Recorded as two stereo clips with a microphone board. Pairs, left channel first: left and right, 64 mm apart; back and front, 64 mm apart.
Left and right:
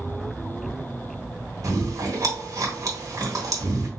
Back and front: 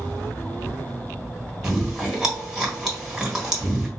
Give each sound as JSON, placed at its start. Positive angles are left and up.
{"t": 1.6, "sound": "chewing", "azimuth_deg": -85, "distance_m": 1.3}